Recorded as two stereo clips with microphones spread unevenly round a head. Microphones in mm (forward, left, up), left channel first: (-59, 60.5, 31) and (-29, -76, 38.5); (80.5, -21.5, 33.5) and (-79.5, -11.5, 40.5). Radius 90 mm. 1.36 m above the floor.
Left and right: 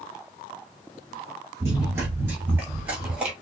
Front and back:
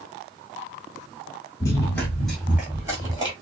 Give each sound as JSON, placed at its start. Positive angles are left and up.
{"t": 1.6, "sound": "running footsteps", "azimuth_deg": -45, "distance_m": 1.4}